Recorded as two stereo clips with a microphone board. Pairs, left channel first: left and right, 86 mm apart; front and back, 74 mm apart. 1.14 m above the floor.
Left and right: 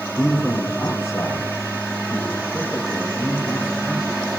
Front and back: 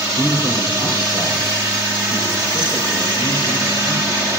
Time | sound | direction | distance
0.2 | a man speaking | 5° right | 2.5 m